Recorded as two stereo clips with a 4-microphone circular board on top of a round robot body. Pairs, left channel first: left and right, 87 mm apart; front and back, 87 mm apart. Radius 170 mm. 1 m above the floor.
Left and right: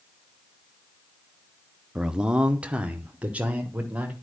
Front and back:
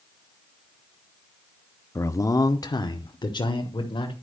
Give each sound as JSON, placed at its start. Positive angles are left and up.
{"t": 1.9, "sound": "a man speaking", "azimuth_deg": -15, "distance_m": 0.8}